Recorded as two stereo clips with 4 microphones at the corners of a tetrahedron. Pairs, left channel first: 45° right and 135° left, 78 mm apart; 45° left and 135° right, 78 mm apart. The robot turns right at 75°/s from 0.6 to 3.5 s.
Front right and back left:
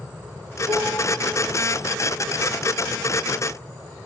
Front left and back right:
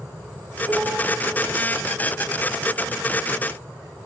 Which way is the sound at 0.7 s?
130° left.